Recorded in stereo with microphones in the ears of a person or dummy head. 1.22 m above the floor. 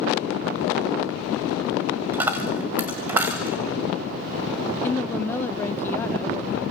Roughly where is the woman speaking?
Centre.